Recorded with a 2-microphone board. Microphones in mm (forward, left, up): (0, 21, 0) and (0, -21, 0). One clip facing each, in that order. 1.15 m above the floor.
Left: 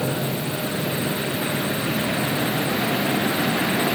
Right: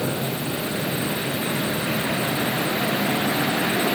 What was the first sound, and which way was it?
Only background noise.